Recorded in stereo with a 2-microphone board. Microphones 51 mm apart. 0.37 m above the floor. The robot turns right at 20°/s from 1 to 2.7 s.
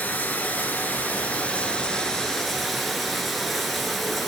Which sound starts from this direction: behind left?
Running water, at 0.0 s.